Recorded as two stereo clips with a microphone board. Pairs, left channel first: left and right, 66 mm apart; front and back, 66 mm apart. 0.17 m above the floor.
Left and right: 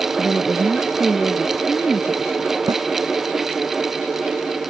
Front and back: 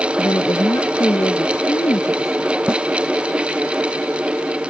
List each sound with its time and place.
0.2 s a woman speaking: 5° left
2.7 s a snare drum: 105° right